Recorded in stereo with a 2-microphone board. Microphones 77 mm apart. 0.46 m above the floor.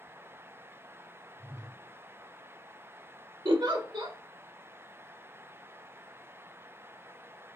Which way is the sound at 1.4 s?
60° right (ahead or behind).